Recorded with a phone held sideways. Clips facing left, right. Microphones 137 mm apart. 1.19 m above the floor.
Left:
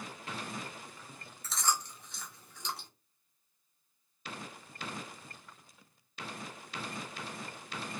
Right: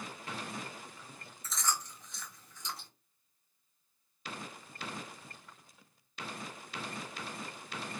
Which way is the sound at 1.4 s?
65° left (ahead or behind).